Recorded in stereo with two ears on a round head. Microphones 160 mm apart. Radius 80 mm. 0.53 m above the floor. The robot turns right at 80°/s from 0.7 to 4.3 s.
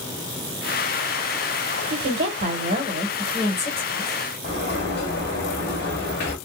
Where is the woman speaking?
110° right, 2.5 m; by 4.2 s 70° left, 2.5 m.